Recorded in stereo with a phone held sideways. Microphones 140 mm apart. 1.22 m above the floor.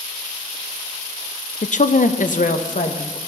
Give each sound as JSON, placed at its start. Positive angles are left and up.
{"t": 1.6, "sound": "a woman speaking", "side_deg": 55, "distance_m": 0.6}